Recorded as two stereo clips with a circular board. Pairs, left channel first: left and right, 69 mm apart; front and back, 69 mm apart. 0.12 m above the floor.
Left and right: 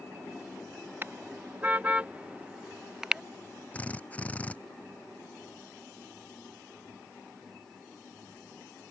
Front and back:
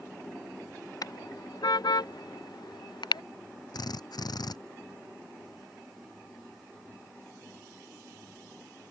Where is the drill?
20° left.